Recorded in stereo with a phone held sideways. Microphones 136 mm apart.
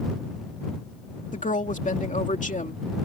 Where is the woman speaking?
70° left (ahead or behind).